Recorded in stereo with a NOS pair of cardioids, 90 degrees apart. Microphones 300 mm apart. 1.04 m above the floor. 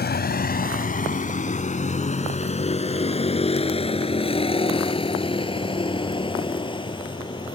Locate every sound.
0.0 s a vehicle: 35° left; by 7.6 s 15° left